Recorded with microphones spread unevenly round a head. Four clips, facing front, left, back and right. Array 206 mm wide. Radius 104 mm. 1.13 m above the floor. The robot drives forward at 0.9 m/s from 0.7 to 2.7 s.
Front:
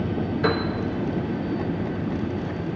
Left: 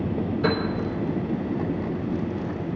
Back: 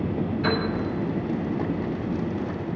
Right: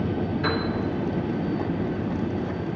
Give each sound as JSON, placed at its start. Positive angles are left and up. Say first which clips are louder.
{"t": 0.4, "sound": "a piano", "louder": "left 3 dB, front 2 dB", "azimuth_deg": 35, "distance_m": 4.0}